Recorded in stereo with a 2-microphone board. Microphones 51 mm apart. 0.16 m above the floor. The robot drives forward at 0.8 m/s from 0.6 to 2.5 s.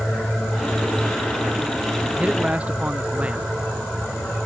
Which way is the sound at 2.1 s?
25° right (ahead or behind).